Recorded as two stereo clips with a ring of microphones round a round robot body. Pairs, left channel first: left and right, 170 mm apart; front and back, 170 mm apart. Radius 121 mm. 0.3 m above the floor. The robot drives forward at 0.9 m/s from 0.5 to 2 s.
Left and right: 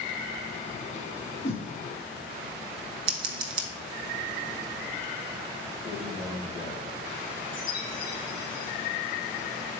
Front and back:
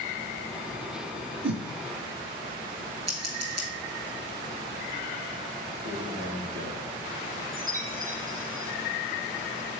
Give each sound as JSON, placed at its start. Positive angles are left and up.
{"t": 1.4, "sound": "a whoosh", "azimuth_deg": 165, "distance_m": 1.0}
{"t": 3.1, "sound": "scissors", "azimuth_deg": -115, "distance_m": 0.7}
{"t": 5.8, "sound": "a man speaking", "azimuth_deg": -160, "distance_m": 3.5}
{"t": 7.5, "sound": "a chime", "azimuth_deg": 155, "distance_m": 2.0}